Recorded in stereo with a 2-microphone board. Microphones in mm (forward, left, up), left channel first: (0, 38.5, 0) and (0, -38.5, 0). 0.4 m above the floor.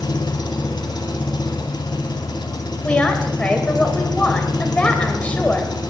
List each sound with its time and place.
0.0 s an engine running: 75° left (ahead or behind), 1.4 m
2.8 s a woman speaking: 15° left (ahead or behind), 1.9 m